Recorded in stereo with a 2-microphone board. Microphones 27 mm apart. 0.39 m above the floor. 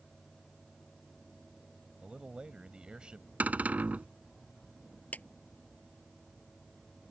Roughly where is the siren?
I don't hear a siren.